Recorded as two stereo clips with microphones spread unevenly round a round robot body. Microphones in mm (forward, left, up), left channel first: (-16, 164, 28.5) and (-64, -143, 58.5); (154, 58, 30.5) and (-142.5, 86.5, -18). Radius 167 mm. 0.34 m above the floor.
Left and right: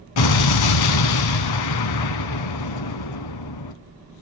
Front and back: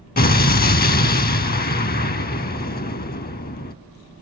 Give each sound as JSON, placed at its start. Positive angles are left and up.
{"t": 0.2, "sound": "an explosion", "azimuth_deg": 55, "distance_m": 0.6}